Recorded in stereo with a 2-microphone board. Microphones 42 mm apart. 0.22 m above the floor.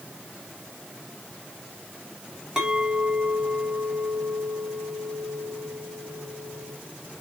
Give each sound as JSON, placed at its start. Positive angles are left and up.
{"t": 2.6, "sound": "a clink", "side_deg": -15, "distance_m": 1.4}